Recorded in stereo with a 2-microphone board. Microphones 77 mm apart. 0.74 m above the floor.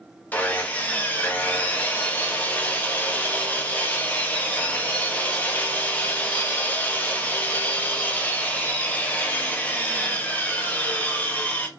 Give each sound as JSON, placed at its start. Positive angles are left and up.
{"t": 0.3, "sound": "sawing", "side_deg": 20, "distance_m": 0.6}